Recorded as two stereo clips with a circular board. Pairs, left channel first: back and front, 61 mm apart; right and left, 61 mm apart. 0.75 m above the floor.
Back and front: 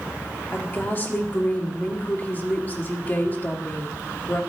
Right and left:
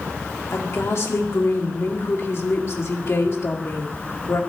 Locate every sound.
0.5 s a woman speaking: 125° right, 1.6 m